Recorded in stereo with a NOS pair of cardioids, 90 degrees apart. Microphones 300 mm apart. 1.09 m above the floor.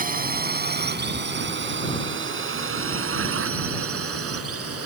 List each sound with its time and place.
0.0 s a drone: 30° right; by 4.9 s 50° right